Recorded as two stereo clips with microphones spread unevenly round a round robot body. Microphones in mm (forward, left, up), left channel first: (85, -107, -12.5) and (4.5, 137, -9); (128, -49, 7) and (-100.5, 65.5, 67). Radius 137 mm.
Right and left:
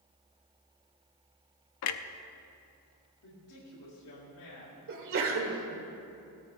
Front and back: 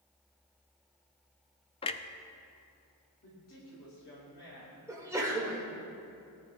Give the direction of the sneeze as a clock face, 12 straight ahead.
10 o'clock.